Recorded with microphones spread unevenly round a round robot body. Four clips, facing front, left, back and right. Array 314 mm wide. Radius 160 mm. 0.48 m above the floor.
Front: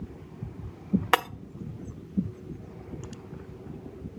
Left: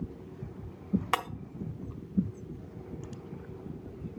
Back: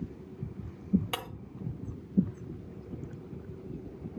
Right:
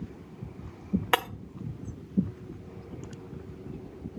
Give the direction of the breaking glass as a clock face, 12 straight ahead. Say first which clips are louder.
Right 6 dB, front 13 dB; 1 o'clock.